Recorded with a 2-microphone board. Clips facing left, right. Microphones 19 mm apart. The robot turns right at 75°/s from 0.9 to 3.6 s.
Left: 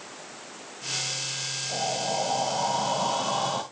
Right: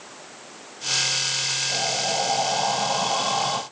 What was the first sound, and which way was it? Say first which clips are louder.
Breathing: right 4 dB; 175° right.